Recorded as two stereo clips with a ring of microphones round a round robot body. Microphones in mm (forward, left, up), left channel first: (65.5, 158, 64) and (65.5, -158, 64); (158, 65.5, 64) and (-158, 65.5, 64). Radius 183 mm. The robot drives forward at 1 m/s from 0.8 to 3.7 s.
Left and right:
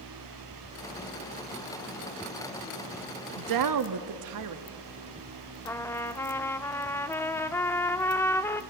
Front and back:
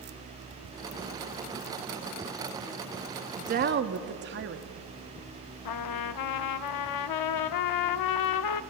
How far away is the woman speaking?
About 1.0 m.